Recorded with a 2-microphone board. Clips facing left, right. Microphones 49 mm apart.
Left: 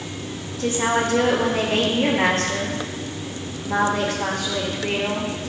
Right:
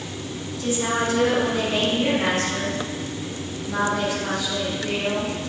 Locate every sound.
0.6 s a woman speaking: 65° left (ahead or behind), 2.5 m